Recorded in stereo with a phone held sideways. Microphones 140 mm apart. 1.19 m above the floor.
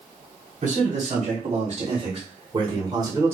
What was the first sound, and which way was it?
A man speaking, 60° right (ahead or behind).